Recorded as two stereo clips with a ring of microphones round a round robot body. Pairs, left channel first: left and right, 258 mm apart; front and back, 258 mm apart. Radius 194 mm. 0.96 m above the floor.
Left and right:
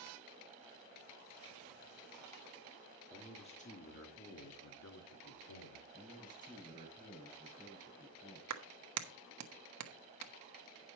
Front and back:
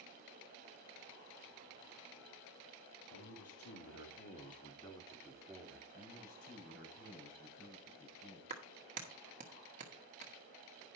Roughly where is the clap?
Behind right.